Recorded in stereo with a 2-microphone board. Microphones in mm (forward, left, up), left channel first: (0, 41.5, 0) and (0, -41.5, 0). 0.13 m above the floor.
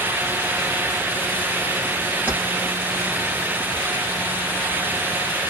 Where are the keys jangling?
20° right (ahead or behind), 2 m.